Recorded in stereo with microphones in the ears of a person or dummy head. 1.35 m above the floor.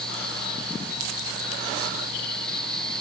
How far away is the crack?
No crack in this recording.